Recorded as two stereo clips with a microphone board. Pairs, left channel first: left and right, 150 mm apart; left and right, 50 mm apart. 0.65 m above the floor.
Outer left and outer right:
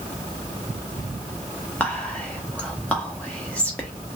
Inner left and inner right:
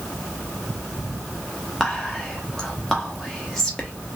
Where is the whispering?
10° left (ahead or behind), 0.7 m.